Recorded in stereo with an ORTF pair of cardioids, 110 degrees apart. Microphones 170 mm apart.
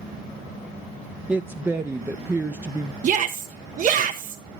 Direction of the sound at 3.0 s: 50° right.